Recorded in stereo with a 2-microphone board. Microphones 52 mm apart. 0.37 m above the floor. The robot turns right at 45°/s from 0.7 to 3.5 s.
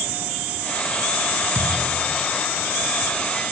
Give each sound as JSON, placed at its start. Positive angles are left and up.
{"t": 1.6, "sound": "a thud", "azimuth_deg": -35, "distance_m": 1.5}